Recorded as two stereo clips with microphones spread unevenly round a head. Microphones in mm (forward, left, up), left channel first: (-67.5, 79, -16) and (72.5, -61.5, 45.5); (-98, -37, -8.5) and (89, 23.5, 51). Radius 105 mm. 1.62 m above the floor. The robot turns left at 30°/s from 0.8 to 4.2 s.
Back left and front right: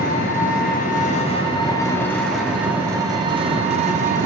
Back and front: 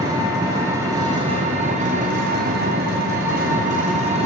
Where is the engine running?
80° left, 1.6 m; by 4.3 s 20° right, 1.6 m.